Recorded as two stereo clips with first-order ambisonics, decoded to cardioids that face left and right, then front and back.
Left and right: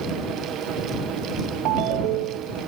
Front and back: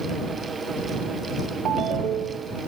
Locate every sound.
1.6 s a ringtone: 120° right